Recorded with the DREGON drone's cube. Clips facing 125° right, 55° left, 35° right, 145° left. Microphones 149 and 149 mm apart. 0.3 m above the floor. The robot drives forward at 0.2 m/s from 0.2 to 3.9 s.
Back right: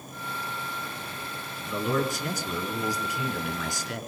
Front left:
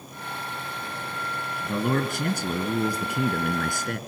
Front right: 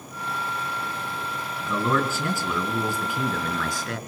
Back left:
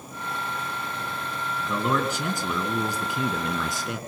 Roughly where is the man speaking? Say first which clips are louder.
Front left 2 dB, front right 1 dB; left.